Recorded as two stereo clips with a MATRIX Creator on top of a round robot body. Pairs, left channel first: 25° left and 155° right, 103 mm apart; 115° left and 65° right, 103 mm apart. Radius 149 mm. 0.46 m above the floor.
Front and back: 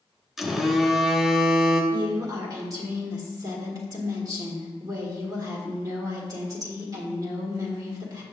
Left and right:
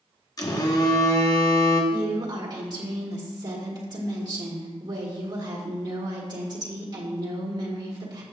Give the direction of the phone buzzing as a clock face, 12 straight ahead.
8 o'clock.